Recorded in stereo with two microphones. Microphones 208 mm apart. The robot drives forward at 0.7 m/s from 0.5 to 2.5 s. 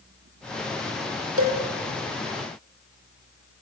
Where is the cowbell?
80° right, 6 m.